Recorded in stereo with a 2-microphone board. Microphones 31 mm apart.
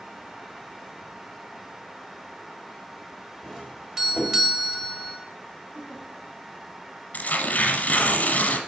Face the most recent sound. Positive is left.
turn(degrees=60)  # may be behind; listen again after turning